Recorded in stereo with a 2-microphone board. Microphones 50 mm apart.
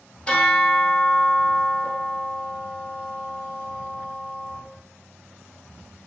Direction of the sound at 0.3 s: 20° left (ahead or behind).